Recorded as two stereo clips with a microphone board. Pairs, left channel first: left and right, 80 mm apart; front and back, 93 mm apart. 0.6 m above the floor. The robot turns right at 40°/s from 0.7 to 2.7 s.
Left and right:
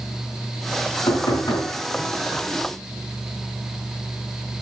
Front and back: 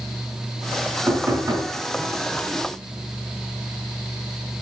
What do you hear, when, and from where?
1.1 s knocking: 115° left, 4.5 m; by 1.7 s 140° left, 4.5 m